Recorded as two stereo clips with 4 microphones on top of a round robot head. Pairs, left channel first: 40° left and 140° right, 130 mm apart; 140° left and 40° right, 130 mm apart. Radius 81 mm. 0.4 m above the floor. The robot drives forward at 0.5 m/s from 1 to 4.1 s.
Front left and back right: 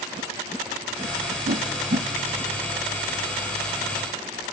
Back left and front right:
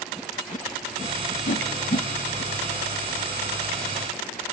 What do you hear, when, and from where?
1.5 s a whoosh: straight behind, 0.6 m